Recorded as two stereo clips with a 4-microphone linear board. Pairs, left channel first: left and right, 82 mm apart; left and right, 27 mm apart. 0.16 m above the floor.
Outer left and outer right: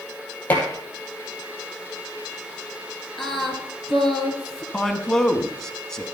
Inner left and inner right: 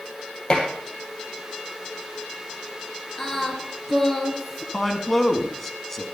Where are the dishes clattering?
20° left (ahead or behind), 3 m.